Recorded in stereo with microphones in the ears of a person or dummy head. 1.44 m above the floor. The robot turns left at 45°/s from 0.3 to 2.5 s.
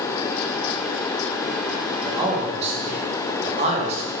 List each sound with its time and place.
2.0 s a man speaking: 15° right (ahead or behind), 0.8 m; by 4.1 s 30° right (ahead or behind), 0.8 m